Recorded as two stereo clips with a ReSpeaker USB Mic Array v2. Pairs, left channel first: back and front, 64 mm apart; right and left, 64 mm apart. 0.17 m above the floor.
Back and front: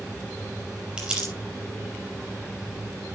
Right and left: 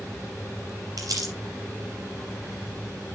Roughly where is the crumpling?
Left.